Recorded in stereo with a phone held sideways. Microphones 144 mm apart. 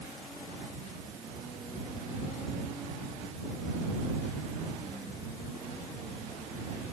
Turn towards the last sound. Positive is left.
No sound to turn to.